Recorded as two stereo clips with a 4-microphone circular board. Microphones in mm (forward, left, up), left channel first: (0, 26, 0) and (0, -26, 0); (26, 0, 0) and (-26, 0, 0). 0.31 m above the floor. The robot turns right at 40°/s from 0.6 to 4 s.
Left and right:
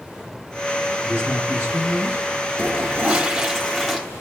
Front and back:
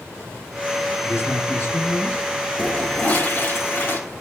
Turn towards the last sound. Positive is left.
turn(degrees=5)